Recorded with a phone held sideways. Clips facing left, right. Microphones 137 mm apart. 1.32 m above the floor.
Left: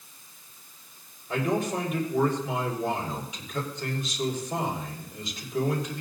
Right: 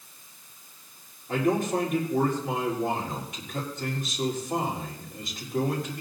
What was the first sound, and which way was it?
A man speaking, 55° right (ahead or behind).